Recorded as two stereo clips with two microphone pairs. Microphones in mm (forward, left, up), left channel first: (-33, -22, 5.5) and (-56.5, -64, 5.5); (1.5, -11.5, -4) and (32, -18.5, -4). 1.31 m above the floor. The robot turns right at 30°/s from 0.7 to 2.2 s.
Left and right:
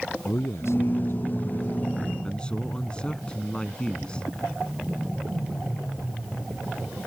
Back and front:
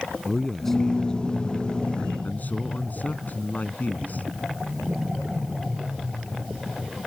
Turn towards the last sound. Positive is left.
turn(degrees=130)